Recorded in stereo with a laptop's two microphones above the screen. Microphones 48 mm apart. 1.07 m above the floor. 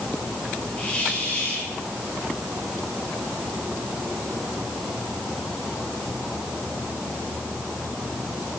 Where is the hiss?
30° left (ahead or behind), 9 m.